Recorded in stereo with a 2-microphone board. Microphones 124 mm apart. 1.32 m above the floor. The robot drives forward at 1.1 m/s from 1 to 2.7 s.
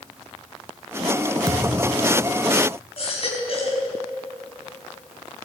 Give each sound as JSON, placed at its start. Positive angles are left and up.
{"t": 1.5, "sound": "a thud", "side_deg": -30, "distance_m": 1.4}
{"t": 3.0, "sound": "a baby crying", "side_deg": 50, "distance_m": 4.5}